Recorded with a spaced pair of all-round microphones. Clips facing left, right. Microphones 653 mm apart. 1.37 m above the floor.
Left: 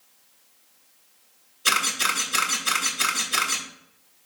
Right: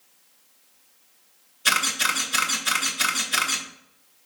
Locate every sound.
1.6 s a camera shutter: 20° right (ahead or behind), 1.3 m